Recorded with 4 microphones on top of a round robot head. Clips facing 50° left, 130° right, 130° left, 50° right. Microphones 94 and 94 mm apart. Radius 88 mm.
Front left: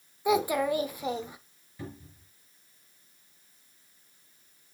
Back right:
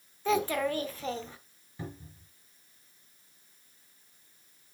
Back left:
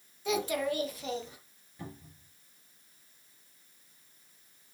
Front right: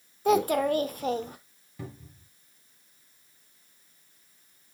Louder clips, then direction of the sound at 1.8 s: Even, front right 3 dB; 60° right.